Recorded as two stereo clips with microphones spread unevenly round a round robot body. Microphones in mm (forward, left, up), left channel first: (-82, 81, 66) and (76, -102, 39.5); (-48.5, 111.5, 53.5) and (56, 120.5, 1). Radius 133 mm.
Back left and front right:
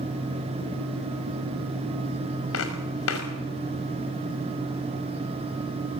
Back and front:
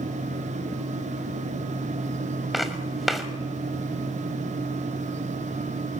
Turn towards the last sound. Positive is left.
turn(degrees=95)